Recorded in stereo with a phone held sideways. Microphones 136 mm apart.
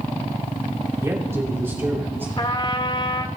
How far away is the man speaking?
About 2.5 m.